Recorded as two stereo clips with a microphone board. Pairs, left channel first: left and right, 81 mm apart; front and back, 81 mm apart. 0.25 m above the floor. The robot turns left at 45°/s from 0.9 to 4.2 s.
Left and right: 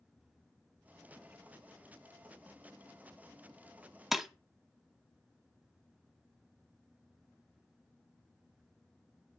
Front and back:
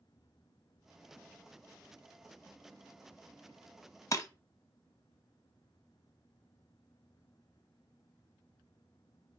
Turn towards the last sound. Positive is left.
turn(degrees=-5)